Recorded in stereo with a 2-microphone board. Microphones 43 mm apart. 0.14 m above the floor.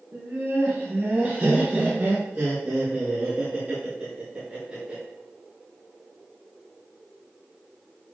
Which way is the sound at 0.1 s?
40° right (ahead or behind).